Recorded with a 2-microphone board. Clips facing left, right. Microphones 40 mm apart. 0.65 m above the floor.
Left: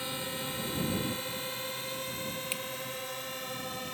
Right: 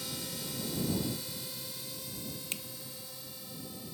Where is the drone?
35° left (ahead or behind); by 3.9 s 65° left (ahead or behind).